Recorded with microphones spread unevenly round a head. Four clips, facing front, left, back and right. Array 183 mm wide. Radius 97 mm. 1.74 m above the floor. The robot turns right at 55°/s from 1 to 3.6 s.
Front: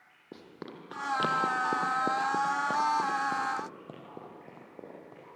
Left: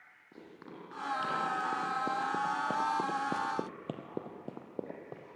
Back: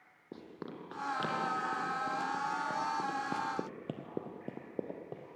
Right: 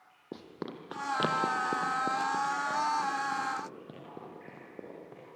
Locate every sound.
0.3 s running footsteps: 90° right, 3.5 m; by 5.4 s 160° left, 3 m